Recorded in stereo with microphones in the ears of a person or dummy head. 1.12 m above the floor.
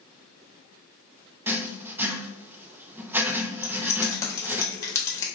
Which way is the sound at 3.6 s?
15° left (ahead or behind).